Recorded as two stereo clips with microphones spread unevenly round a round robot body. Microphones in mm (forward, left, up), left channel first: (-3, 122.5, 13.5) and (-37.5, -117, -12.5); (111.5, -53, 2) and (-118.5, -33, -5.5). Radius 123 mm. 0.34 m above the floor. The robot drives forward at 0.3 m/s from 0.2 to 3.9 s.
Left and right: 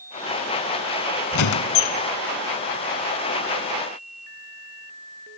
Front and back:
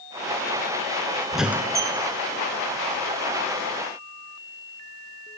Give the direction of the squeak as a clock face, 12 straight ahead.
9 o'clock.